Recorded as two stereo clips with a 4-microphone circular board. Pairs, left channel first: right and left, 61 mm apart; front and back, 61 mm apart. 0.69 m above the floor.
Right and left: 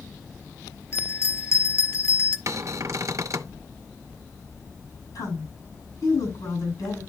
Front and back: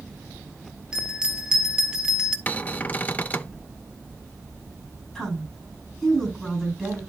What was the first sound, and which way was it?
A bell, 110° right.